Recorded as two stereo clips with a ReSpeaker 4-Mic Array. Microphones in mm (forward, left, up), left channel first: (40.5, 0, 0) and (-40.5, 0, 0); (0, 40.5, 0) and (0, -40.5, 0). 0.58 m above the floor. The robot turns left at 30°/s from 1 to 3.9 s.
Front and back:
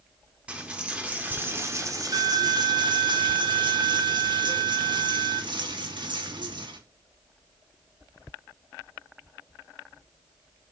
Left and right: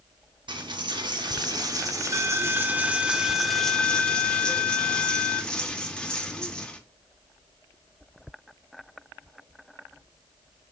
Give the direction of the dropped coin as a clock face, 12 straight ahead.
3 o'clock.